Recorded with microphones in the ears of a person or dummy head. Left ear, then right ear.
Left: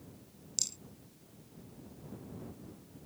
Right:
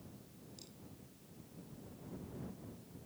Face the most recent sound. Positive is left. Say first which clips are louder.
# left 24 dB
turn(degrees=60)  # may be behind; listen again after turning